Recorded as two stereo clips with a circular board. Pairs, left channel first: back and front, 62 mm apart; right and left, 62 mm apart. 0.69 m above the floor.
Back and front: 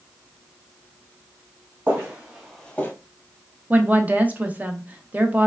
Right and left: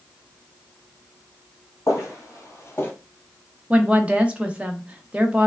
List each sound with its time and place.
1.9 s footsteps: 55° right, 1.7 m; by 2.9 s 140° right, 0.9 m
3.7 s a woman speaking: 40° left, 0.6 m